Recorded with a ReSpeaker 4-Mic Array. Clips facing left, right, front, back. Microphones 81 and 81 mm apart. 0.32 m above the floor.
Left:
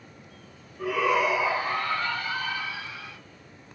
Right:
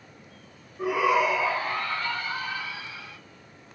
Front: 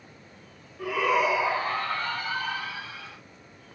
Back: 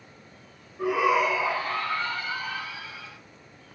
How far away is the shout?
About 1.0 m.